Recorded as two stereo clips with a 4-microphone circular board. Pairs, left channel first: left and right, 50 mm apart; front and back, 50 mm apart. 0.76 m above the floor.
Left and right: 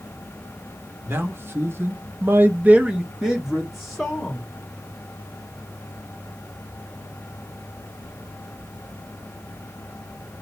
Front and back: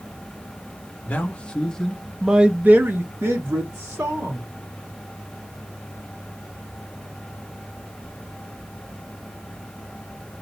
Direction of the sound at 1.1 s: 55° right.